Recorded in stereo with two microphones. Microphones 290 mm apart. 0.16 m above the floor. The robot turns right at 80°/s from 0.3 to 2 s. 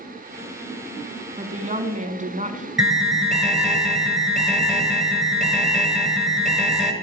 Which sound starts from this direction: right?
A woman speaking, at 1.4 s.